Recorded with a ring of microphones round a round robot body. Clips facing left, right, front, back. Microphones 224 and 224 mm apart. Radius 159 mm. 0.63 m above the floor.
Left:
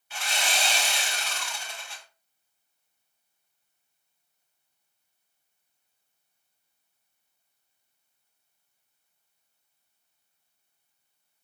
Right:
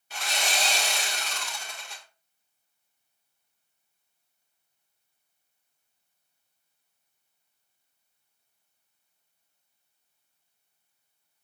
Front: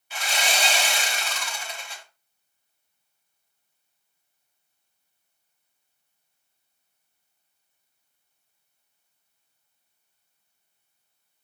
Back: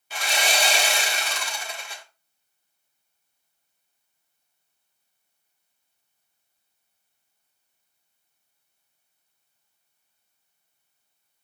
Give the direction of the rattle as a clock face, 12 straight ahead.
I don't hear a rattle.